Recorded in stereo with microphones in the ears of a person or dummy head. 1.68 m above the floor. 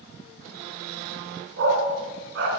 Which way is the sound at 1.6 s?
65° right (ahead or behind).